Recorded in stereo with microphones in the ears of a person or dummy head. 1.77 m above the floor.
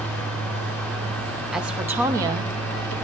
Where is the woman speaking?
5° right (ahead or behind), 1.3 m; by 2.9 s 40° right (ahead or behind), 0.9 m.